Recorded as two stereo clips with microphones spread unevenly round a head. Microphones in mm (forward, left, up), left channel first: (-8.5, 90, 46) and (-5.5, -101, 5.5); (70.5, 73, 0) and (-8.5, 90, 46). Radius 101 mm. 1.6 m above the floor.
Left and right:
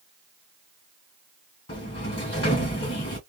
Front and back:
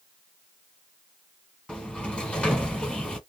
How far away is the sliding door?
About 1.7 m.